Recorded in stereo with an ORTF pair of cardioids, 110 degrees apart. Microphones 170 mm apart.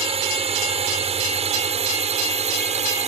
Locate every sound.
0.0 s a drone: 35° right; by 3.1 s 40° right